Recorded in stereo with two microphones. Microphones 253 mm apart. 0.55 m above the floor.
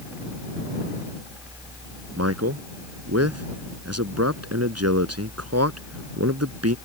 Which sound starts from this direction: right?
A man speaking, at 2.2 s.